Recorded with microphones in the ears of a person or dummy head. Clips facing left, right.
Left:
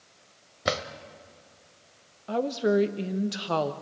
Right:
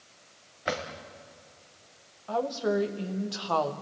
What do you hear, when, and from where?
0.7 s a drawer: 50° left (ahead or behind), 1.4 m
2.3 s a woman speaking: 25° left (ahead or behind), 1.1 m